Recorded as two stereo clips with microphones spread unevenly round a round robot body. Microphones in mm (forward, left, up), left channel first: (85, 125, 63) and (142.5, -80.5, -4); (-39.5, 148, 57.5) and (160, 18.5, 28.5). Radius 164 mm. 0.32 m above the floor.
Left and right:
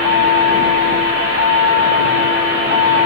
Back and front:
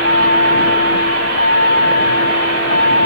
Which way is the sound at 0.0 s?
105° left.